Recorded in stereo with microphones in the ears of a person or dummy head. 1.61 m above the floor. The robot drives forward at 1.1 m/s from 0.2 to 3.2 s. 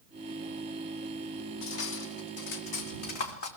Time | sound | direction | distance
1.6 | cutlery clinking | 75° left (ahead or behind) | 2.5 m